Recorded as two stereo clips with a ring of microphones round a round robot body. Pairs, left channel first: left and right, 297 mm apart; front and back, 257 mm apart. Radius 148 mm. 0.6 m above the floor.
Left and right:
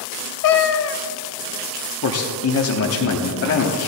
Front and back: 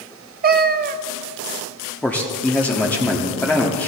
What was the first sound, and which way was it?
A cat meowing, 130° left.